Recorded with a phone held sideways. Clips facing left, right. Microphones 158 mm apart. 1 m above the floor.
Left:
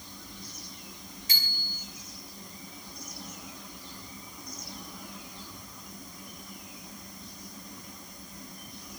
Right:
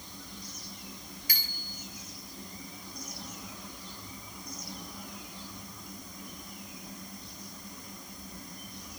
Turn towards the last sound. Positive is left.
turn(degrees=25)  # may be behind; listen again after turning